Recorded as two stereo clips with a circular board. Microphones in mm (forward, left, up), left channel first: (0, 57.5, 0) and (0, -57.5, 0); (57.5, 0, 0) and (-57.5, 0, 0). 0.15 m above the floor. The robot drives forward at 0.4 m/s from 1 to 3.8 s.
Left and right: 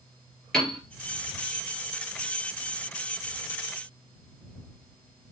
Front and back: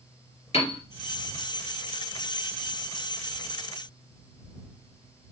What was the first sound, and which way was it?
A piano, 5° left.